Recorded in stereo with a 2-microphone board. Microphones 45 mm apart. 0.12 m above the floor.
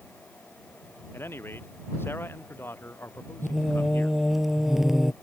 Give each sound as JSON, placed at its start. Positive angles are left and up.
{"t": 1.1, "sound": "a man speaking", "side_deg": 55}
{"t": 3.4, "sound": "singing", "side_deg": -5}